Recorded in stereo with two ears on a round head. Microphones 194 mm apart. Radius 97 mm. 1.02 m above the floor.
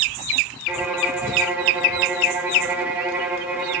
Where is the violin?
10° right (ahead or behind), 0.9 m.